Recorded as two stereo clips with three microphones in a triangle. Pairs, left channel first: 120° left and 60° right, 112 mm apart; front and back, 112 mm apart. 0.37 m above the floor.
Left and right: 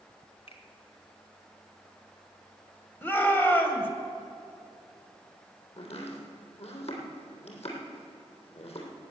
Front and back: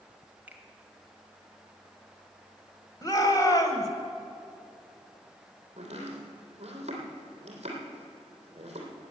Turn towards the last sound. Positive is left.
turn(degrees=150)